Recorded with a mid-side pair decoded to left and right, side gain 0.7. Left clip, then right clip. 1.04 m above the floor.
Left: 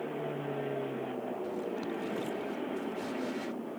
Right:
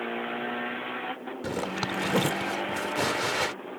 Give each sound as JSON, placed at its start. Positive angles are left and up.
{"t": 1.4, "sound": "a zipper", "azimuth_deg": -65}